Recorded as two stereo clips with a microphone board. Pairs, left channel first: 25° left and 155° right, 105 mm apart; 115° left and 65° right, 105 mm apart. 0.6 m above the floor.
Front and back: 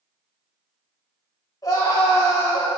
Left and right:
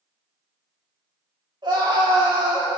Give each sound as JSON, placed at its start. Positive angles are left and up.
{"t": 1.6, "sound": "a scream", "azimuth_deg": -30, "distance_m": 4.0}